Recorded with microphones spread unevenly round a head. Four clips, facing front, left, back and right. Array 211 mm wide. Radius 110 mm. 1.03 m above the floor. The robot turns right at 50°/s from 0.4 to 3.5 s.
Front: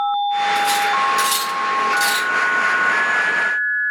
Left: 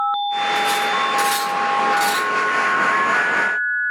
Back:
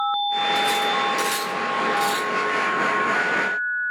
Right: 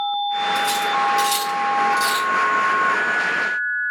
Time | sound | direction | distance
0.6 | cutlery clinking | 100° right | 4 m